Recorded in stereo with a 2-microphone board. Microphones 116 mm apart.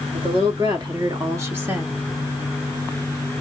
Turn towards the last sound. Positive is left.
turn(degrees=-10)  # may be behind; listen again after turning